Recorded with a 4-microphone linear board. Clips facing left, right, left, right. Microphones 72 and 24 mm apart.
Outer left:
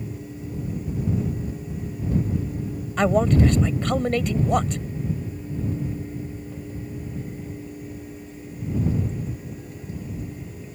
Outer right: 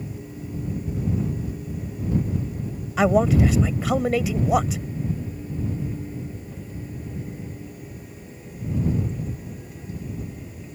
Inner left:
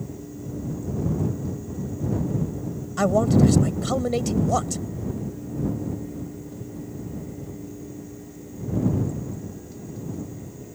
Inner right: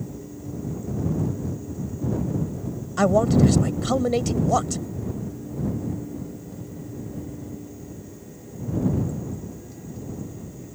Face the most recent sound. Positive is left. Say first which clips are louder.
# outer right 1 dB, inner right 1 dB
turn(degrees=-5)  # may be behind; listen again after turning